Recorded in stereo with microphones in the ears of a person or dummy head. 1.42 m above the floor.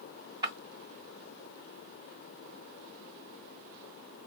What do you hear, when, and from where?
0.4 s breaking glass: 20° right (ahead or behind), 2.5 m